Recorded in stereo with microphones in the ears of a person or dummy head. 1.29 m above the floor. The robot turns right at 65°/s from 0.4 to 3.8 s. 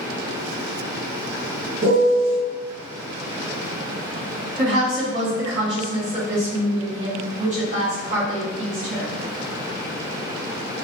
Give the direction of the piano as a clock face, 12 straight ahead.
3 o'clock.